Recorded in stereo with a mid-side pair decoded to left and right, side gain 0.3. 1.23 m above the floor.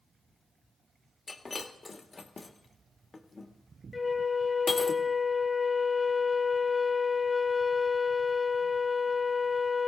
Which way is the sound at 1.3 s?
40° left.